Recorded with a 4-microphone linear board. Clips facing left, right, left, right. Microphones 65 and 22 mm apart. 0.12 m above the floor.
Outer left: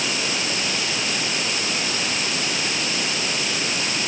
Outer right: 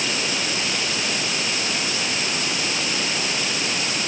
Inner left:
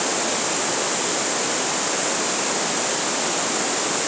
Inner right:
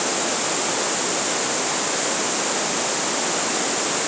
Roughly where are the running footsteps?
No running footsteps in this recording.